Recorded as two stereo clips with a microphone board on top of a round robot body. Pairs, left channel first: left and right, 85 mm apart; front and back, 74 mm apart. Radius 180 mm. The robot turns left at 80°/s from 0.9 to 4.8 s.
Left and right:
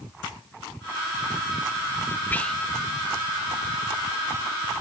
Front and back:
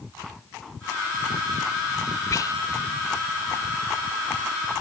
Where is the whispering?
25° left; by 2.5 s 5° left.